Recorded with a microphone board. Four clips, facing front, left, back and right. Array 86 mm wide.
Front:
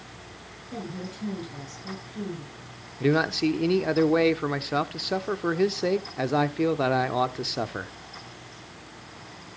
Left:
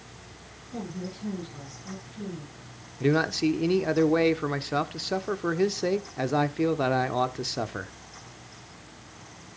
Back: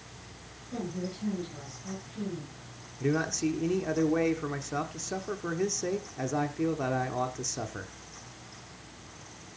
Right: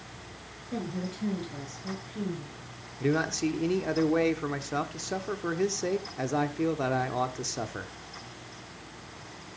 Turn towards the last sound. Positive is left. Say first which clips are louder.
# left 4 dB, front 6 dB
turn(degrees=25)